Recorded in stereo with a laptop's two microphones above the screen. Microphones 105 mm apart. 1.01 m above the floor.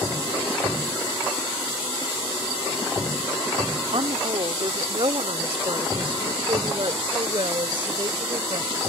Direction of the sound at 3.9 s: 65° right (ahead or behind).